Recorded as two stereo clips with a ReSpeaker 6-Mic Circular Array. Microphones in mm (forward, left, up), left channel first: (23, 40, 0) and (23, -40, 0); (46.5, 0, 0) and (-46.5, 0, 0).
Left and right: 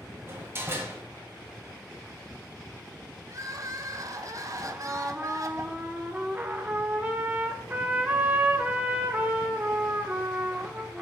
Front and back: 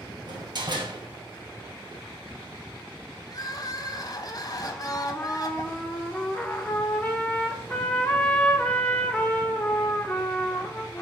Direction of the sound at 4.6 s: 55° right.